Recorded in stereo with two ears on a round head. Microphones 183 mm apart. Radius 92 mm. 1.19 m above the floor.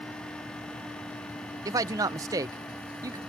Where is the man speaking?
15° right (ahead or behind).